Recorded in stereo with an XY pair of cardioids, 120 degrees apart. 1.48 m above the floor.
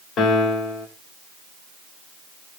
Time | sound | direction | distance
0.2 | a piano | 60° left | 1.6 m